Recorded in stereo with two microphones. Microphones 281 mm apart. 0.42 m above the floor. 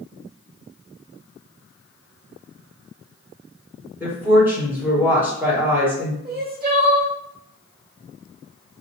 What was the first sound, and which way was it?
A woman speaking, 5° right (ahead or behind).